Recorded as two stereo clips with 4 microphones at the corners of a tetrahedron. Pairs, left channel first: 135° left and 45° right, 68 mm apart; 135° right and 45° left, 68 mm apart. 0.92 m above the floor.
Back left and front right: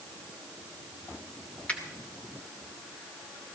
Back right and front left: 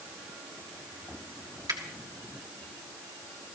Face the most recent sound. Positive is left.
turn(degrees=65)